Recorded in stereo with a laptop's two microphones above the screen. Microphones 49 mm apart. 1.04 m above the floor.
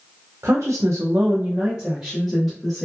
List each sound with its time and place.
0.4 s a woman speaking: 80° right, 0.6 m; by 2.9 s 5° left (ahead or behind), 1.0 m